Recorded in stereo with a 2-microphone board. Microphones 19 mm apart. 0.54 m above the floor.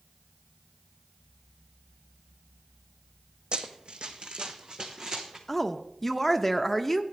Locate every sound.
3.5 s running footsteps: 60° right (ahead or behind), 1.1 m; by 5.4 s 45° right (ahead or behind), 1.8 m
5.5 s a woman speaking: 15° left (ahead or behind), 0.6 m